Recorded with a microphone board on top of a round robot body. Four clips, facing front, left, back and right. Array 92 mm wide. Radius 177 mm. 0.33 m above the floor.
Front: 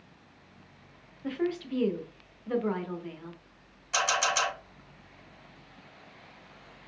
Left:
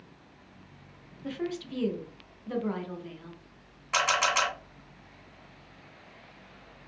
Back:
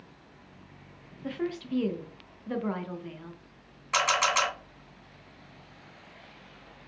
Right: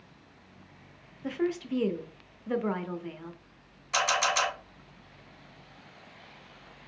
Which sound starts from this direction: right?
A woman speaking, at 1.2 s.